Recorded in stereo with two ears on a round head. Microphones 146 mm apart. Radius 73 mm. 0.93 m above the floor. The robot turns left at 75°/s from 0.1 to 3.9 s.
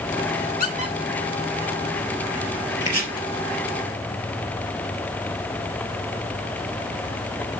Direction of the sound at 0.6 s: 55° left (ahead or behind).